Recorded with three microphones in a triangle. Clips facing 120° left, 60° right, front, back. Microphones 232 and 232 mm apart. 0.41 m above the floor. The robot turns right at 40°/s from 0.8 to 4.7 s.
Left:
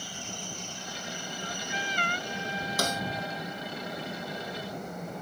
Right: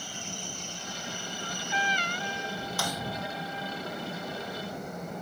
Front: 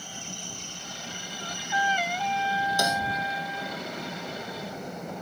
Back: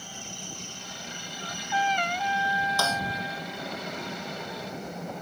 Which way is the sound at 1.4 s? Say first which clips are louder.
Right 3 dB, back 1 dB; 60° left.